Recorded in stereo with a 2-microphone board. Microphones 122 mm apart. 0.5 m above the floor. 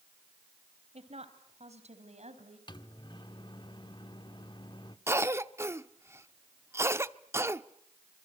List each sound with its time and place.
0.9 s a woman speaking: 60° right (ahead or behind), 3.5 m; by 2.6 s 65° right (ahead or behind), 4.5 m
2.7 s a microwave: 40° left (ahead or behind), 1.1 m
5.1 s a cough: 20° right (ahead or behind), 0.8 m